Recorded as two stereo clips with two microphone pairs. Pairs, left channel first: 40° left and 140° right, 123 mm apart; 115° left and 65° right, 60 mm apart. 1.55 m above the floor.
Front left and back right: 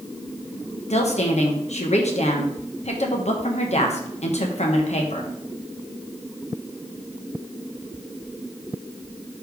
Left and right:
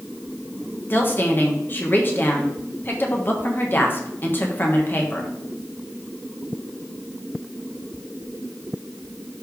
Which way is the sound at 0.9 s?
60° left.